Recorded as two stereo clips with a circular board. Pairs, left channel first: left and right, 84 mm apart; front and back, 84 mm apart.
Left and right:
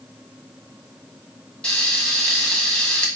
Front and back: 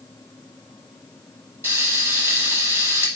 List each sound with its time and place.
1.6 s frying: 160° left, 0.8 m